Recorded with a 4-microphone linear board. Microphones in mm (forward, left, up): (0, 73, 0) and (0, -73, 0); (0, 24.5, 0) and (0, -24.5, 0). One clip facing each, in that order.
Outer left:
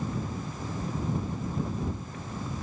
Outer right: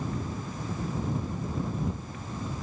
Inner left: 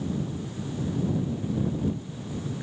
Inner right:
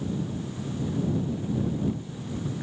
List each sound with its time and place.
Only background noise.